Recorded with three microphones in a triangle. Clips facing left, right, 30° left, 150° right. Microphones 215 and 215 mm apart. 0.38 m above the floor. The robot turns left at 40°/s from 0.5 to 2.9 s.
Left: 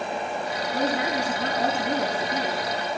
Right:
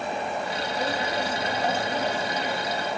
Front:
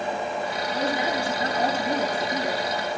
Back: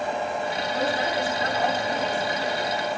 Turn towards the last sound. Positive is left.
turn(degrees=30)